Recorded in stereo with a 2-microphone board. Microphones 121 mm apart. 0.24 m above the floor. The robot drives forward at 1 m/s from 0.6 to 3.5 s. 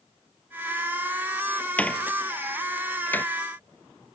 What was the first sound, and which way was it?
A door slam, 10° left (ahead or behind).